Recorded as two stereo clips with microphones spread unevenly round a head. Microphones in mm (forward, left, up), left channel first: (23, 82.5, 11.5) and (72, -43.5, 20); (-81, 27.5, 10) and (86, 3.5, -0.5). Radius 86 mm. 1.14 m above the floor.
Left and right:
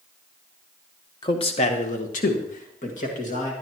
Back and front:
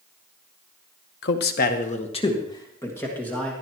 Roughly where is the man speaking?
Behind.